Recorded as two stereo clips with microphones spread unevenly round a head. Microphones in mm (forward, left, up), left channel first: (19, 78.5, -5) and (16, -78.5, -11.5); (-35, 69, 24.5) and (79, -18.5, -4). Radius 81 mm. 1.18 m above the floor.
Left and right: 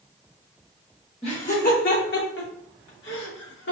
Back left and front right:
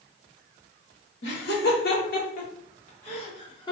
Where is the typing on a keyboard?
I don't hear typing on a keyboard.